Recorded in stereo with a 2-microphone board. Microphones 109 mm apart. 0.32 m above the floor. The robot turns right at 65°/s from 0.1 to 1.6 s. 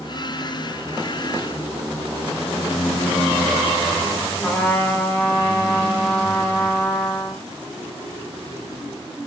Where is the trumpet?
20° left (ahead or behind), 1.2 m.